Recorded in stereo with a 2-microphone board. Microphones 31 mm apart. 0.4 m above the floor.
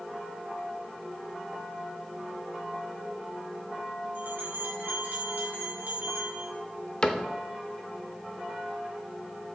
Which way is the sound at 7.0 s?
30° left (ahead or behind).